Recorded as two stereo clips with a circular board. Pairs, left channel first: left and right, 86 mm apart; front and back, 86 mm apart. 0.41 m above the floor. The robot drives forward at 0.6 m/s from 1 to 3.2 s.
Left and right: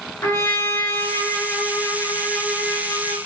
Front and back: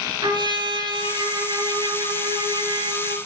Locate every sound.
0.2 s a trumpet: 150° left, 6 m; by 3.2 s 155° left, 7 m